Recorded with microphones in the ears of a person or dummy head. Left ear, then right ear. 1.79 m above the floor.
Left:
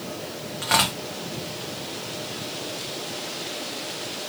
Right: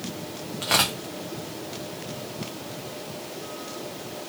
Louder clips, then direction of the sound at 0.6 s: Left 1 dB; centre (ahead or behind).